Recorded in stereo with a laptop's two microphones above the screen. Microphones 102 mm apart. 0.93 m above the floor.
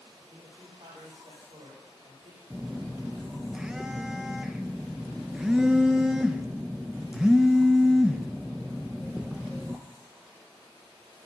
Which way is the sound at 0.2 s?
80° right.